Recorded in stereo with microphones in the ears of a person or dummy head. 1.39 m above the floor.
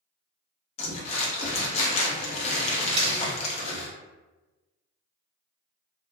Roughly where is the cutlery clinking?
Right.